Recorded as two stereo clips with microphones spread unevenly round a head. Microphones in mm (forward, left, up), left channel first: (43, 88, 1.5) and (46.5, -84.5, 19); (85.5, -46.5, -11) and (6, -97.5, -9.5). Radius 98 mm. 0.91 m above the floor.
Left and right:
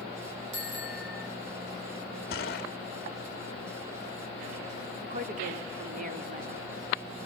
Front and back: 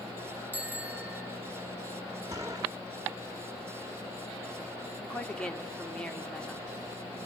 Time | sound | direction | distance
0.5 | a bicycle bell | 80° right | 9 m
2.3 | a gunshot | 135° left | 1.0 m
5.0 | a woman speaking | 45° right | 2.5 m